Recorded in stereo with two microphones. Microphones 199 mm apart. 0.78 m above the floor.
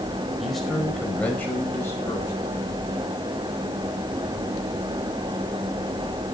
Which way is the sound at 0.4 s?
Centre (ahead or behind).